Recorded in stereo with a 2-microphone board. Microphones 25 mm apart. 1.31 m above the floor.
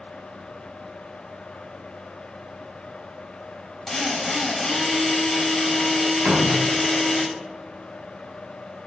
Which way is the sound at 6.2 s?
70° right (ahead or behind).